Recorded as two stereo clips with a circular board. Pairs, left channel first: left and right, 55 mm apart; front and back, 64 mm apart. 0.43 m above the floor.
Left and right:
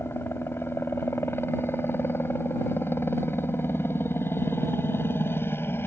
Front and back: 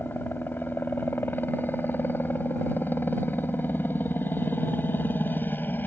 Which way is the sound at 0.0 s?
55° left.